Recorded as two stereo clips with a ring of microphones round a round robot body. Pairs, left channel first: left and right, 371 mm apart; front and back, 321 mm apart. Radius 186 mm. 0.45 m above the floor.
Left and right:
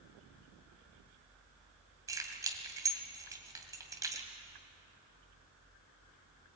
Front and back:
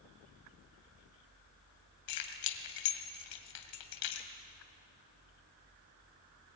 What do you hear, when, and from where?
2.1 s keys jangling: 10° right, 2 m